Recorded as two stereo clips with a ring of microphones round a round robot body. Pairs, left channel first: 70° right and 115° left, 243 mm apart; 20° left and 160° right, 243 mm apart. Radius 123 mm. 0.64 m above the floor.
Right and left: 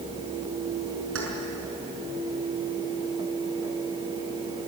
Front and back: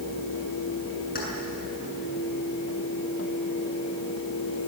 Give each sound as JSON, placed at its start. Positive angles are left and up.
{"t": 1.1, "sound": "keys jangling", "azimuth_deg": 75, "distance_m": 6.0}